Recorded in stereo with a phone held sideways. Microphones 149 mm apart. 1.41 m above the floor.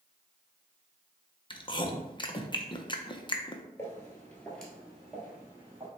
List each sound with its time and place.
1.5 s chewing: 30° left (ahead or behind), 0.6 m
3.8 s footsteps: 15° left (ahead or behind), 1.7 m; by 5.9 s 15° right (ahead or behind), 2 m